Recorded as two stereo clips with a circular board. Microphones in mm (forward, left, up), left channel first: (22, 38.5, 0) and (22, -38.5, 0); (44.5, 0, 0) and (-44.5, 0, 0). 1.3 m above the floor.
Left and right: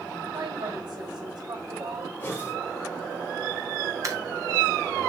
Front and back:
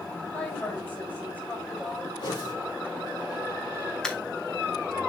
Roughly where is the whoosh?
Ahead left.